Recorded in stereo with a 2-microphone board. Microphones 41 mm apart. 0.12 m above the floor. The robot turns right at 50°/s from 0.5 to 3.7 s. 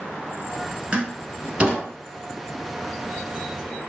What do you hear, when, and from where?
0.9 s a door slam: 30° right (ahead or behind), 1.3 m; by 1.8 s 25° right (ahead or behind), 1.3 m